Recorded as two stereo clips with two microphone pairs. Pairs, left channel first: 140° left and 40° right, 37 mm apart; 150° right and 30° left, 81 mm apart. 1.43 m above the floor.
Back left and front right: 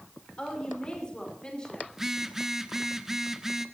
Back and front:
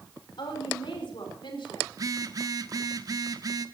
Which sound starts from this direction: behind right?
A woman speaking, at 0.4 s.